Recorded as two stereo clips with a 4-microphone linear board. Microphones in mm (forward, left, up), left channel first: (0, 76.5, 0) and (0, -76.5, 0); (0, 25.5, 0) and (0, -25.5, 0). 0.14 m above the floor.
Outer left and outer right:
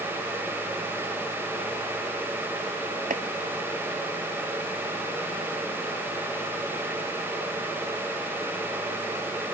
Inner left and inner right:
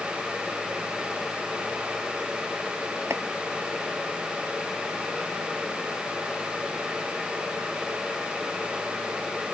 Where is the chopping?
65° right (ahead or behind).